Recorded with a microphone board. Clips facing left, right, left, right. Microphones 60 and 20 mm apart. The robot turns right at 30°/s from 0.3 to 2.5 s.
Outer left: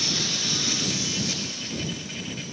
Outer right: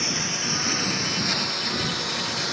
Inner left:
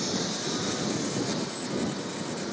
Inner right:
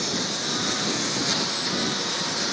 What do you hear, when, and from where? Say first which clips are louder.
0.0 s a lawn mower: outer right 2 dB, inner right 4 dB; 155° right; by 2.5 s 90° right